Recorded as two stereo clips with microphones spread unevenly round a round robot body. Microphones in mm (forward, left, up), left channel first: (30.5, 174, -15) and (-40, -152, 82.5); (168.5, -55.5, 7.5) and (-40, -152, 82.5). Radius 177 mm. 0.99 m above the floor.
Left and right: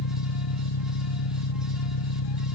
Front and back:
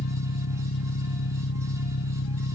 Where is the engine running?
65° left.